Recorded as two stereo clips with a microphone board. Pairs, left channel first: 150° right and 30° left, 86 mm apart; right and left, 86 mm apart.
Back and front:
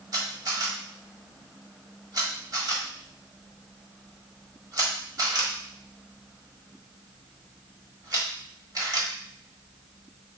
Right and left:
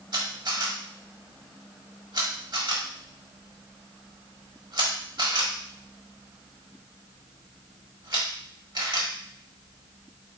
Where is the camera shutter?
65° left, 1.5 m.